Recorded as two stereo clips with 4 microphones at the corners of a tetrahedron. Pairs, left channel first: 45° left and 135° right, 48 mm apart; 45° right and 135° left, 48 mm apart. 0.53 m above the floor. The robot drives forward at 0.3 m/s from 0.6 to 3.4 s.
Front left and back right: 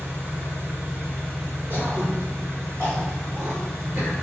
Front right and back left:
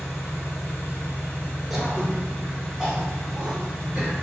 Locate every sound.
0.0 s an engine running: 85° right, 1.5 m; by 4.2 s 115° right, 1.6 m
1.7 s throat clearing: 145° right, 1.3 m; by 4.1 s 155° right, 1.7 m